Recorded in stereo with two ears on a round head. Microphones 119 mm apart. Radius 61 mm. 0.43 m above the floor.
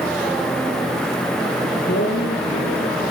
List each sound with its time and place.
1.6 s a man speaking: 70° left (ahead or behind), 9.5 m